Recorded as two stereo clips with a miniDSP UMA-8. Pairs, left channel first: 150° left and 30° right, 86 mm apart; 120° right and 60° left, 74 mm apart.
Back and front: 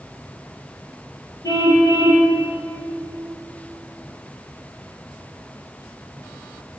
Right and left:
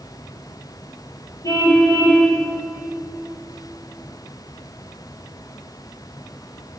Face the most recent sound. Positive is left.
turn(degrees=-165)